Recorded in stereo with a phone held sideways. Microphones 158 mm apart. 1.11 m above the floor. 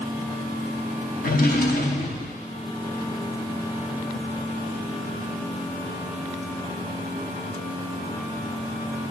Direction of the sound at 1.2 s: 65° left (ahead or behind).